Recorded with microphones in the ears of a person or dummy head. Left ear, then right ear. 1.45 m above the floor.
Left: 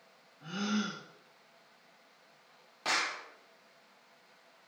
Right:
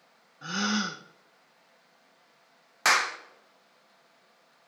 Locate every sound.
0.4 s a gasp: 65° right (ahead or behind), 0.9 m
2.9 s a clap: 60° right (ahead or behind), 0.9 m